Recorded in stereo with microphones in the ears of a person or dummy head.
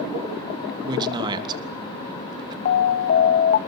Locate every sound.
0.8 s a man speaking: 20° right (ahead or behind), 3 m
2.6 s an alarm: 40° left (ahead or behind), 1.1 m